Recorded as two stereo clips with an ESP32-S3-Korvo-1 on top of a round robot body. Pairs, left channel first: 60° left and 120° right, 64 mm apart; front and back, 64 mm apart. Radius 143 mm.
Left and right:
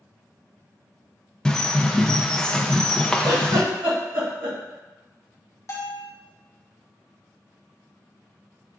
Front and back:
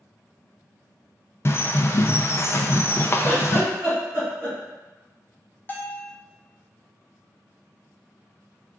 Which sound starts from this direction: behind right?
A giggle, at 3.2 s.